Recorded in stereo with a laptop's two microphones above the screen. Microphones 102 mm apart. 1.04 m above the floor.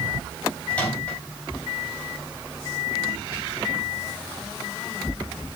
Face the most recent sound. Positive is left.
turn(degrees=15)  # may be behind; listen again after turning